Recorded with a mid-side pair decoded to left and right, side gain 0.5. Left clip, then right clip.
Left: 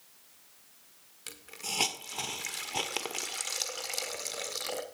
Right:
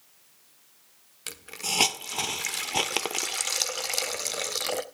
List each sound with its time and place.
1.3 s a hiss: 45° right, 1.6 m